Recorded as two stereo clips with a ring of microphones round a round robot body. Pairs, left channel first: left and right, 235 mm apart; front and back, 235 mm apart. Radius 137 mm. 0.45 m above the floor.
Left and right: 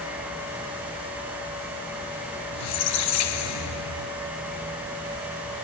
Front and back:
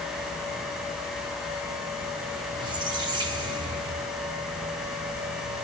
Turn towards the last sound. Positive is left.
turn(degrees=105)